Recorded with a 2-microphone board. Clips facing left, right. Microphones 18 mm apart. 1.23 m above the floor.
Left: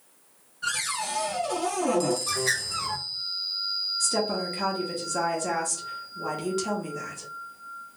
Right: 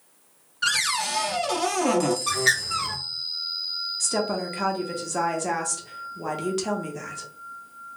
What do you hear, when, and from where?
0.6 s a cupboard door: 85° right, 0.7 m
2.3 s a bird: 60° right (ahead or behind), 1.3 m
4.0 s a woman speaking: 20° right (ahead or behind), 1.3 m